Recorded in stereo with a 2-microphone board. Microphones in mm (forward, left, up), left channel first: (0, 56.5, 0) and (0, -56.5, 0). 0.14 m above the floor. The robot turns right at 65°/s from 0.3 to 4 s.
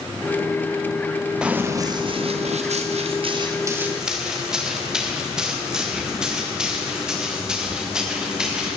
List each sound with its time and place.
1.4 s running footsteps: 10° right (ahead or behind), 1.8 m; by 8.8 s 5° right (ahead or behind), 5.5 m